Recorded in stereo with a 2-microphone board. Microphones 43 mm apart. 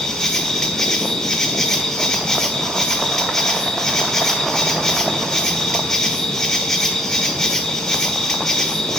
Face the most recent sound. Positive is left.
turn(degrees=15)  # may be behind; listen again after turning